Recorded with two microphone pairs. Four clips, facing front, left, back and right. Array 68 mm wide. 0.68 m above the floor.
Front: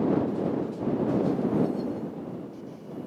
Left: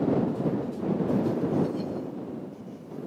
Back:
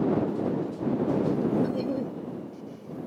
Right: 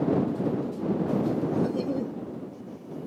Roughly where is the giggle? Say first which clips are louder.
Right 3 dB, back 1 dB; behind right.